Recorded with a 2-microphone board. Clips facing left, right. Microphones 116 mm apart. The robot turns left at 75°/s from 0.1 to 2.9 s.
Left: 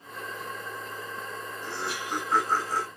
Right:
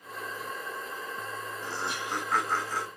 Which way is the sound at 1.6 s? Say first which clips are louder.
Left 1 dB; 155° right.